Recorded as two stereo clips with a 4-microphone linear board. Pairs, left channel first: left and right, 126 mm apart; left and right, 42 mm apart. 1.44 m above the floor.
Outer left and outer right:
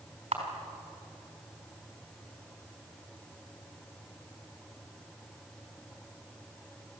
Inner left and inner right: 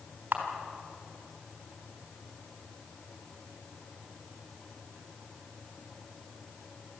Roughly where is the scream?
No scream in this recording.